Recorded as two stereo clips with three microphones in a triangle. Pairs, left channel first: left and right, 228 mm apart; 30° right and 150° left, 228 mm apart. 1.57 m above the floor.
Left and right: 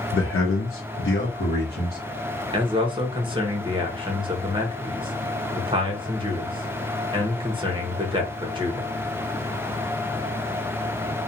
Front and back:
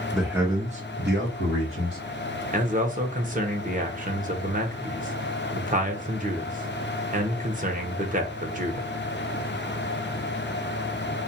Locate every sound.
0.1 s a man speaking: 55° left, 0.6 m; by 2.0 s 135° left, 1.3 m
2.5 s a man speaking: 155° right, 0.7 m